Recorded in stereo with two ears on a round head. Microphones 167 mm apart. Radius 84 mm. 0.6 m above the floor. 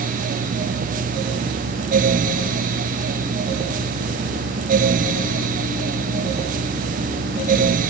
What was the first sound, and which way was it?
Only background noise.